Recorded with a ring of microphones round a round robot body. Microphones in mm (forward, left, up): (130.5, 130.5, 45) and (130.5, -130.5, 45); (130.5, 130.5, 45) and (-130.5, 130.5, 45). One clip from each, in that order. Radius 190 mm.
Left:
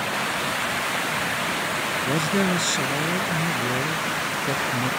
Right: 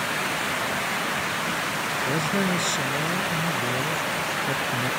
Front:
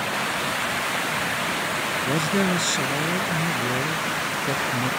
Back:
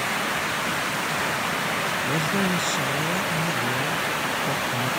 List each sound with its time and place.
2.0 s a woman speaking: 35° left